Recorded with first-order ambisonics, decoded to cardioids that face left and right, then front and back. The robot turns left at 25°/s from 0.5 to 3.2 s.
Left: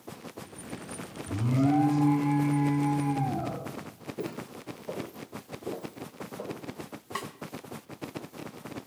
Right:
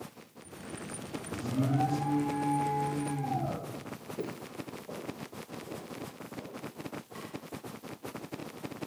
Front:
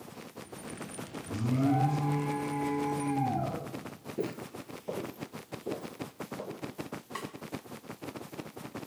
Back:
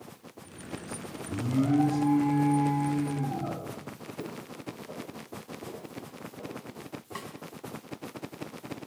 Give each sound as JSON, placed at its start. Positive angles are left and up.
{"t": 1.3, "sound": "an alarm", "azimuth_deg": 80, "distance_m": 6.5}
{"t": 4.2, "sound": "footsteps", "azimuth_deg": 0, "distance_m": 0.7}
{"t": 7.2, "sound": "a snare drum", "azimuth_deg": 85, "distance_m": 0.9}